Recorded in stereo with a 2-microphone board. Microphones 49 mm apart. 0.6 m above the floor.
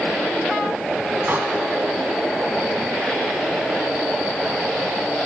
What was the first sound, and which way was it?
A door slam, 50° right (ahead or behind).